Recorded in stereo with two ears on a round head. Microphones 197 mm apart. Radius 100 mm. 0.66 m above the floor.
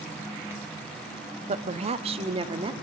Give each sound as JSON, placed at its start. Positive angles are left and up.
{"t": 1.5, "sound": "a woman speaking", "side_deg": -30, "distance_m": 1.2}